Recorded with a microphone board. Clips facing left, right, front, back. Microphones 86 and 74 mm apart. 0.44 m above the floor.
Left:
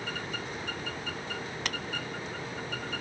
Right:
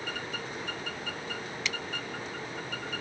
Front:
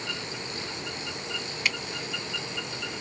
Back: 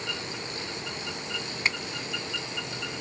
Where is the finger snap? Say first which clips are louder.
Even, back 1 dB; 125° left.